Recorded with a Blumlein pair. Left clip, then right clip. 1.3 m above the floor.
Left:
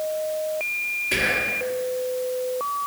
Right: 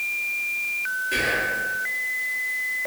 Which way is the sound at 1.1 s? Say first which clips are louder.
Left 1 dB; 25° left.